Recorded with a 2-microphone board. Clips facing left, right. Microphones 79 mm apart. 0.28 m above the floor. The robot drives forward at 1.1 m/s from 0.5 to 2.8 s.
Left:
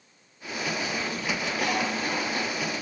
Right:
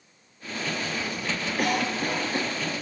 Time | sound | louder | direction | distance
1.6 | a cough | right 3 dB | 55° right (ahead or behind) | 7.5 m